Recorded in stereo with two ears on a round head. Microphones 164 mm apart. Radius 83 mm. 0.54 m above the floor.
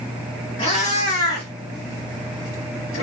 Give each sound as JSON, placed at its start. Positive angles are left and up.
{"t": 0.6, "sound": "a cat meowing", "side_deg": 35, "distance_m": 1.4}